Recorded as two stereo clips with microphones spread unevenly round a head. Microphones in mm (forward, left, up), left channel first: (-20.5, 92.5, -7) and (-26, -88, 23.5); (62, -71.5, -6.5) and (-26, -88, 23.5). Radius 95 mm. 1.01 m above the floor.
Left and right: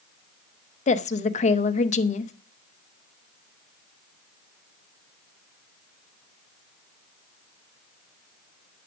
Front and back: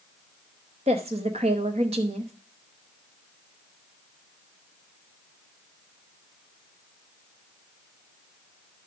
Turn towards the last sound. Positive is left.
turn(degrees=135)